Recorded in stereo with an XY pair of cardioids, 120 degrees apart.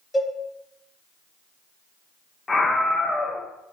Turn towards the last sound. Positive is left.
turn(degrees=20)